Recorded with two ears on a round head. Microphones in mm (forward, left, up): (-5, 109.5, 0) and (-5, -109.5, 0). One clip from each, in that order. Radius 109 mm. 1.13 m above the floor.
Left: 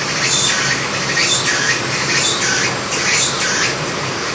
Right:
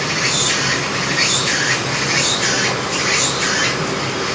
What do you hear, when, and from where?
0.0 s an insect: 50° left (ahead or behind), 8 m